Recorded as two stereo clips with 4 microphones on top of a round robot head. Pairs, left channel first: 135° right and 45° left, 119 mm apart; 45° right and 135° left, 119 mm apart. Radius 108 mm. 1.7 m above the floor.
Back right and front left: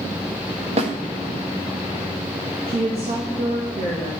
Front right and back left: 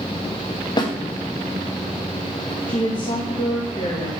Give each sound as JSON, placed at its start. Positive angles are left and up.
{"t": 0.8, "sound": "a snare drum", "azimuth_deg": 10, "distance_m": 1.9}
{"t": 2.7, "sound": "a woman speaking", "azimuth_deg": 10, "distance_m": 3.0}